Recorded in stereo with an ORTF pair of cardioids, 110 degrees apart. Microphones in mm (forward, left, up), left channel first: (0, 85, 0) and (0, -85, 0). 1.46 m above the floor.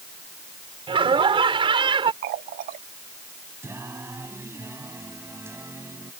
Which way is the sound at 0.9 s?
30° right.